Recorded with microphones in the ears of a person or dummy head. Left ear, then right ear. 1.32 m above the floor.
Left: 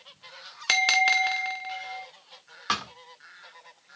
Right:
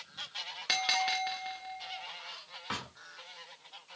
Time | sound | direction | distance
0.7 | a bell | 35° left (ahead or behind) | 1.2 m
2.7 | a thud | 55° left (ahead or behind) | 1.5 m